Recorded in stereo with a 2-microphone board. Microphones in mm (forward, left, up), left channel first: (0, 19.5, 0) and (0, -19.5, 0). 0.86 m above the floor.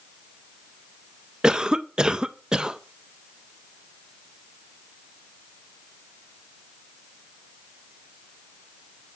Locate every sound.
1.4 s a cough: 20° right (ahead or behind), 0.5 m